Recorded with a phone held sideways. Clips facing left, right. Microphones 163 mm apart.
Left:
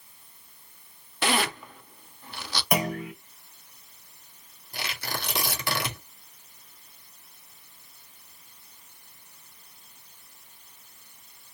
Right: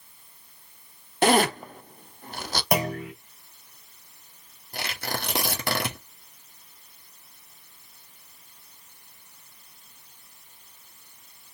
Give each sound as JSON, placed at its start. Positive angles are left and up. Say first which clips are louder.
{"t": 1.2, "sound": "a zipper", "louder": "right 7 dB", "side_deg": -50, "distance_m": 0.5}
{"t": 2.7, "sound": "a clunk", "louder": "right 1 dB", "side_deg": -35, "distance_m": 2.0}
{"t": 4.7, "sound": "tearing paper", "louder": "right 3 dB", "side_deg": -55, "distance_m": 1.5}